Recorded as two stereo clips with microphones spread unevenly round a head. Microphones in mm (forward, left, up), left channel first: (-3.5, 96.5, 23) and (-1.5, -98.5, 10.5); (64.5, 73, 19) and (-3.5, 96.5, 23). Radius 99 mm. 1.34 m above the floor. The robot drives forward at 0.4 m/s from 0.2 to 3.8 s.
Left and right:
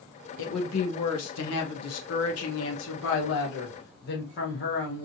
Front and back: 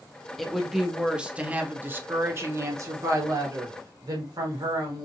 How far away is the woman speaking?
About 1.3 m.